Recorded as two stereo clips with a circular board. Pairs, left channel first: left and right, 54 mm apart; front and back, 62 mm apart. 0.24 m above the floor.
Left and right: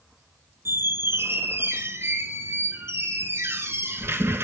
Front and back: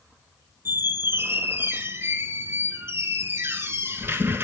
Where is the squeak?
130° right, 0.7 m.